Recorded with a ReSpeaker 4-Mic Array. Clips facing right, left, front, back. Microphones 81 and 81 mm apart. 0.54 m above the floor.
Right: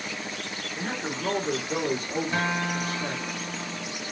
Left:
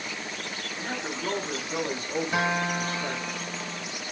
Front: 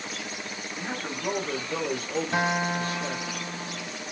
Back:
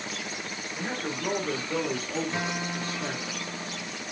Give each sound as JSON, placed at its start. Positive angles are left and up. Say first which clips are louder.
{"t": 0.8, "sound": "a man speaking", "louder": "right 2 dB, back 2 dB", "azimuth_deg": -100, "distance_m": 1.7}
{"t": 2.3, "sound": "a guitar", "louder": "left 2 dB, front 6 dB", "azimuth_deg": 15, "distance_m": 0.6}